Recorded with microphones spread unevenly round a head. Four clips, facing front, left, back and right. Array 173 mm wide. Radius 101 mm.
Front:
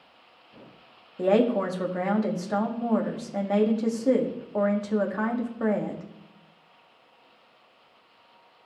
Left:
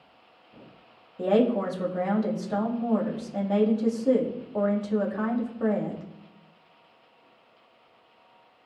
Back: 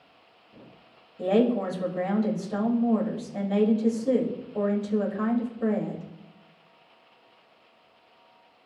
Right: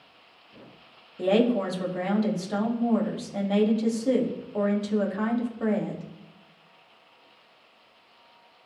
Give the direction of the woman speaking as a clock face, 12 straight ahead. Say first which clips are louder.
Even, front 1 dB; 12 o'clock.